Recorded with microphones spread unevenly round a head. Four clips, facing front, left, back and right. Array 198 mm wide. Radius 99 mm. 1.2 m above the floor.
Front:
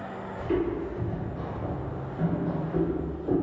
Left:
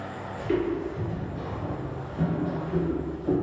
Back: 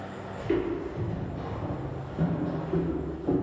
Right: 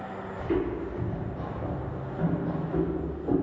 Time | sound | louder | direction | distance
0.4 | footsteps | left 2 dB, even | 105° left | 1.2 m